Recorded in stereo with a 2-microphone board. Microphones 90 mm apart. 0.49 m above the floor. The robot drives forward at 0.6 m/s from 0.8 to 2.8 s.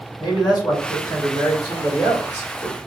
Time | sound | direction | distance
0.2 | a man speaking | 45° left (ahead or behind) | 1.4 m